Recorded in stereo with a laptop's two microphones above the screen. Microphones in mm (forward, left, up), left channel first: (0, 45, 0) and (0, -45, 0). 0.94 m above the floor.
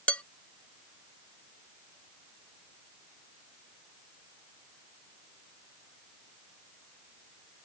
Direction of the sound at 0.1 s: 15° left (ahead or behind).